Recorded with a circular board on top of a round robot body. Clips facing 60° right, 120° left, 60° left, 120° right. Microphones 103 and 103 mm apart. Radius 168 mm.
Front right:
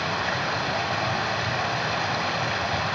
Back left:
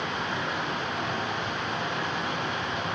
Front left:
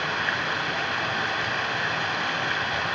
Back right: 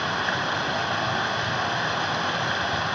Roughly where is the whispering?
No whispering in this recording.